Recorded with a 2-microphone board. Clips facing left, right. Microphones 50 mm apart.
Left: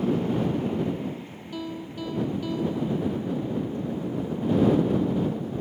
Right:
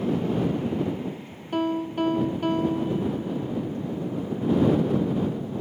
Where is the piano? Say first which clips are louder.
Right 10 dB; 50° right (ahead or behind).